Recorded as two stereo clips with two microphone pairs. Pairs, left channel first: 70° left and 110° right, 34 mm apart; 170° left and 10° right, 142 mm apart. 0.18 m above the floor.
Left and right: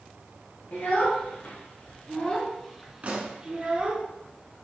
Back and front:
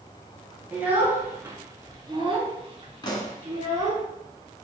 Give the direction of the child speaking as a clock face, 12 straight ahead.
10 o'clock.